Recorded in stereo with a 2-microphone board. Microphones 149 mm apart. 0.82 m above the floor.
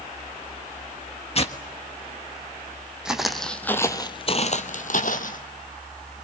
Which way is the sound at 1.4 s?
45° left (ahead or behind).